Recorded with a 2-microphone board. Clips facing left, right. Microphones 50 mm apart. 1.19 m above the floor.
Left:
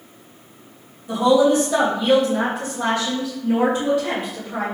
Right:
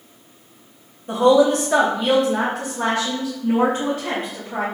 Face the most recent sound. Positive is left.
turn(degrees=-50)  # may be behind; listen again after turning